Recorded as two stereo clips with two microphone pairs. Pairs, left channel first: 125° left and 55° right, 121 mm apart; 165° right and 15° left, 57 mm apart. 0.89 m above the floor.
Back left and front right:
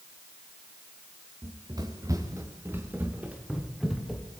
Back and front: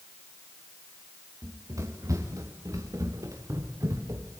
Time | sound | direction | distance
1.4 | running footsteps | 5° right | 4.5 m